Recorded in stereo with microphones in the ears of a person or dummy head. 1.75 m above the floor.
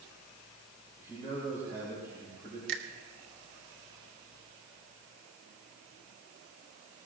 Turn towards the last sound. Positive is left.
turn(degrees=-75)  # may be behind; listen again after turning